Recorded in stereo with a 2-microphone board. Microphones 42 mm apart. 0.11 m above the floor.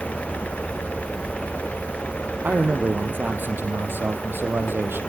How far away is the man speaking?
About 3.5 m.